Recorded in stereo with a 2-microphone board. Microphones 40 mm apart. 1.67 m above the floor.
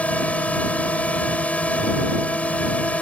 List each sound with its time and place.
0.0 s a drone: 35° left (ahead or behind)